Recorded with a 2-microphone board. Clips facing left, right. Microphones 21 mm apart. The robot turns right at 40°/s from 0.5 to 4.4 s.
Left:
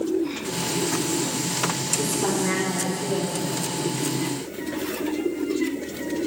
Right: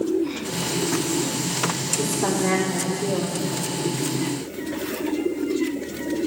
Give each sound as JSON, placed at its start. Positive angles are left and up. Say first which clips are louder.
{"t": 2.0, "sound": "a woman speaking", "louder": "right 2 dB", "azimuth_deg": -175, "distance_m": 5.5}